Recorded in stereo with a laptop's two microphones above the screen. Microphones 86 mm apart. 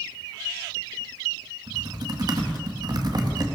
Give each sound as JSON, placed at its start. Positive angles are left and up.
{"t": 1.7, "sound": "typing on a keyboard", "side_deg": -50, "distance_m": 1.8}